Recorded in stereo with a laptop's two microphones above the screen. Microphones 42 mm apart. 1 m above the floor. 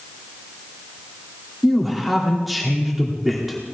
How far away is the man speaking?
About 2.5 m.